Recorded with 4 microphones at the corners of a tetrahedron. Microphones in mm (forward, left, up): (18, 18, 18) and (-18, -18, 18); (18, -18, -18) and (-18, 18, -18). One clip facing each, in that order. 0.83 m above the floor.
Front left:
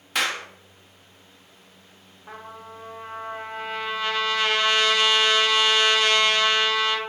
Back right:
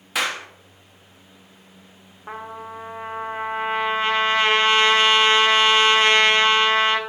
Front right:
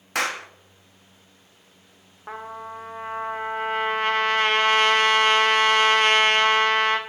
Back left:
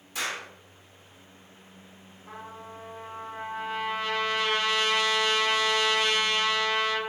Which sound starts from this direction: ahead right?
A clap, at 0.1 s.